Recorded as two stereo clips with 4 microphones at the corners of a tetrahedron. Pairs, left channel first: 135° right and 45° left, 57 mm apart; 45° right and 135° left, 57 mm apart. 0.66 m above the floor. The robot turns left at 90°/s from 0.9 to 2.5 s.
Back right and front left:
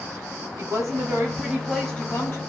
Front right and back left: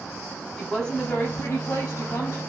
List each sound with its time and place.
0.6 s a woman speaking: 30° left, 3.5 m; by 2.4 s 105° right, 3.5 m